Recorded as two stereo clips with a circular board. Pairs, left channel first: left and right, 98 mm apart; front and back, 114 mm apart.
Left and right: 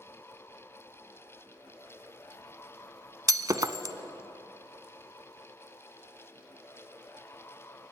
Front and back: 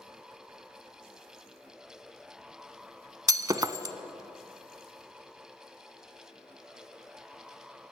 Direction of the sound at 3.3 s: 130° right.